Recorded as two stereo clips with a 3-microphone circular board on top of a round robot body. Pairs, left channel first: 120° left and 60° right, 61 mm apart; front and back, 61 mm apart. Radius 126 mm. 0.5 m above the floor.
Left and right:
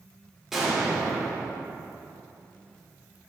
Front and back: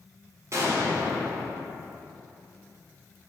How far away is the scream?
I don't hear a scream.